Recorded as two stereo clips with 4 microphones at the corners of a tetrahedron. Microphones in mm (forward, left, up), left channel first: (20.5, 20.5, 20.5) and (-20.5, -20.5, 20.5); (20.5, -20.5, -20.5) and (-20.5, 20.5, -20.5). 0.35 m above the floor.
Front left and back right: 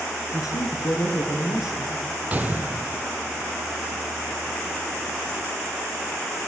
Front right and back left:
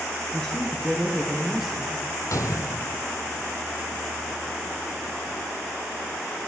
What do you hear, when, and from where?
0.3 s a man speaking: 35° left, 5.5 m; by 2.0 s 50° left, 6 m
2.3 s a gunshot: 70° right, 2.0 m